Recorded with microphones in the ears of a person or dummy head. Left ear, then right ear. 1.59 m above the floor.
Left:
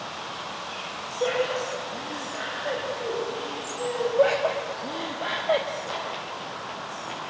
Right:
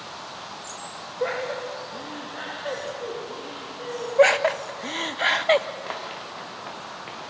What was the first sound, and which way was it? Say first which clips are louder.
Laughter: left 2 dB; 35° right (ahead or behind).